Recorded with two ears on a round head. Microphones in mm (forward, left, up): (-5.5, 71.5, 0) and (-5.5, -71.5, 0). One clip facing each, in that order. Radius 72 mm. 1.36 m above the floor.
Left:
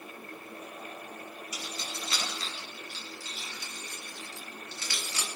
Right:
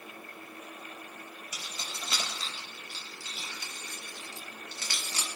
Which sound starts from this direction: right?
Keys jangling, at 1.5 s.